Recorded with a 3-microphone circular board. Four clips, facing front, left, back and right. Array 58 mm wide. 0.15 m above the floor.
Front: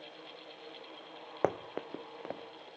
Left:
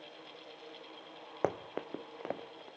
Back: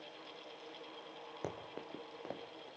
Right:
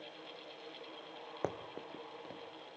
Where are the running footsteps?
25° left, 0.8 m; by 2.7 s 80° left, 1.5 m.